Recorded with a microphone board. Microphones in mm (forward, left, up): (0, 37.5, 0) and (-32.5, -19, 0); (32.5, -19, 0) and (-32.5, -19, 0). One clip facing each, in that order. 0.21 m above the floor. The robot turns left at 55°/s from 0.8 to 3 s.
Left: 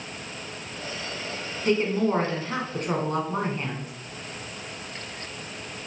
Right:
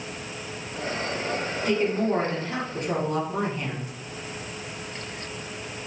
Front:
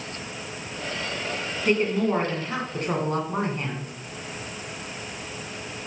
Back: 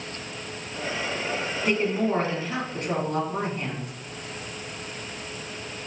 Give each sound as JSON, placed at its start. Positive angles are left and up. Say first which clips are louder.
{"t": 1.6, "sound": "a woman speaking", "louder": "left 1 dB, front 2 dB", "azimuth_deg": 95, "distance_m": 1.6}